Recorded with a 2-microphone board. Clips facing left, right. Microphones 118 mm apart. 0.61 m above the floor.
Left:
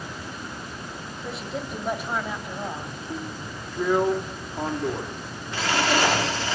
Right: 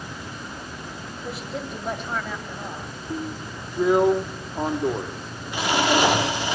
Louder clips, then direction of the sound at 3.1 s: Right 5 dB; 15° right (ahead or behind).